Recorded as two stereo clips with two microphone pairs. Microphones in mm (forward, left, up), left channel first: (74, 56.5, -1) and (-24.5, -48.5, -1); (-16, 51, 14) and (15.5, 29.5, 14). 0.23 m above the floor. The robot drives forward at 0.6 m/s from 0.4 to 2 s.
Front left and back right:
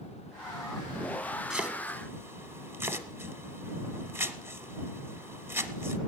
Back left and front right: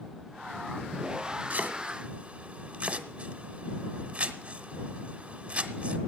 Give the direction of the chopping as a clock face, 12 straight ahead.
2 o'clock.